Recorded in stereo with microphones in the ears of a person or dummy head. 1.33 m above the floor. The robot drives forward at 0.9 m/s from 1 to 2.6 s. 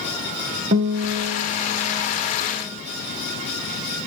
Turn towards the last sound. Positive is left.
turn(degrees=-10)  # may be behind; listen again after turning